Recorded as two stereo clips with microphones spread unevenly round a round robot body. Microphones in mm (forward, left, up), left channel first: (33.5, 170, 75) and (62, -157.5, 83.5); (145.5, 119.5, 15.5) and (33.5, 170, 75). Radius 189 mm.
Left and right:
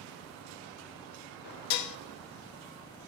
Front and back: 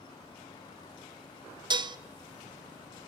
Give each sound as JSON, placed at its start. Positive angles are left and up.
{"t": 1.7, "sound": "dishes clattering", "azimuth_deg": 85, "distance_m": 0.6}